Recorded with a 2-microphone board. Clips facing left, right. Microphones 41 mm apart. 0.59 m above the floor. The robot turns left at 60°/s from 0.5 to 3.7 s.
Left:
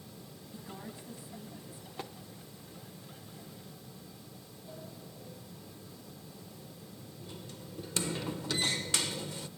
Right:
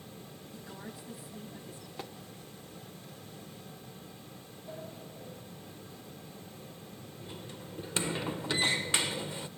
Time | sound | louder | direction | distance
0.5 | a woman speaking | left 1 dB | 20° left | 5 m
2.0 | tapping | left 1 dB | centre (ahead or behind) | 0.7 m
4.7 | a sliding door | right 4 dB | 30° right (ahead or behind) | 0.5 m